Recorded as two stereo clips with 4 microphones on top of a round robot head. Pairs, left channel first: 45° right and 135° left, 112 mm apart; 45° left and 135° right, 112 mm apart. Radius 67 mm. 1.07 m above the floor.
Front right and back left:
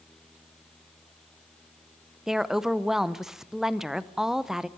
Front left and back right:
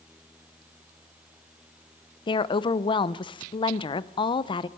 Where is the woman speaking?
55° left, 0.7 m.